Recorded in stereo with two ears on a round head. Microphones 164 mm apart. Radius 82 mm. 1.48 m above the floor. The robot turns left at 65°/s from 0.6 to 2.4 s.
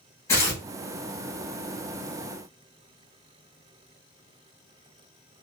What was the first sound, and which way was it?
Tearing paper, 15° left (ahead or behind).